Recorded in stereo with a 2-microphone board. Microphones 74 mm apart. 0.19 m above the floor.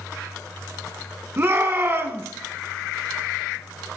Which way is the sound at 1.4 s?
35° right (ahead or behind).